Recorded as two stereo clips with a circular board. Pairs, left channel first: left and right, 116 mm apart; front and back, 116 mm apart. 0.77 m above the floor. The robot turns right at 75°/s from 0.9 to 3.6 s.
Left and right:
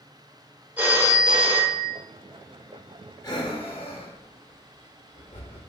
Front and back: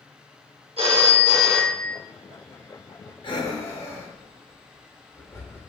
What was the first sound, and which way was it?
A phone ringing, 160° right.